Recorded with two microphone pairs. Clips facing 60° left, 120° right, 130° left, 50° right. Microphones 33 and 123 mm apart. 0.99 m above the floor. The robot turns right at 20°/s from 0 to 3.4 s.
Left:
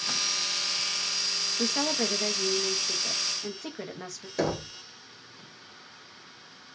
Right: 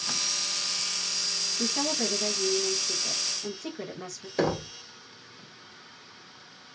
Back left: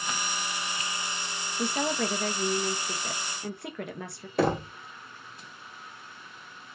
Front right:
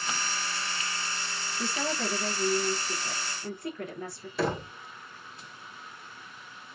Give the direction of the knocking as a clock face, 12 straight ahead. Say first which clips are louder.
Right 2 dB, back left 4 dB; 6 o'clock.